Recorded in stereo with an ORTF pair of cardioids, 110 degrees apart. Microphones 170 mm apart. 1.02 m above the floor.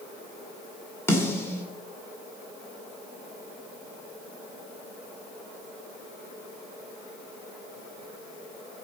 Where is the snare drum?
15° left, 2 m.